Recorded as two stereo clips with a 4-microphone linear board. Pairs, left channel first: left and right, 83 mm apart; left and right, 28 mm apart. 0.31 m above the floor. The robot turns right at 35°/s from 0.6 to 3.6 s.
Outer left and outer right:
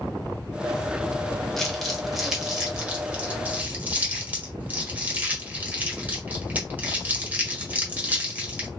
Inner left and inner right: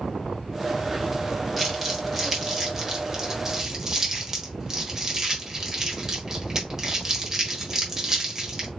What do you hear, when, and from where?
1.6 s crumpling: 5° left (ahead or behind), 1.4 m; by 8.7 s 20° right (ahead or behind), 1.4 m